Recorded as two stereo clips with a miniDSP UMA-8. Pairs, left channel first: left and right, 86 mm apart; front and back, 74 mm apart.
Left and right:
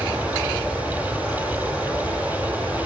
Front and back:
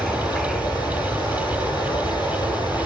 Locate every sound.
0.0 s running water: 15° right, 6.5 m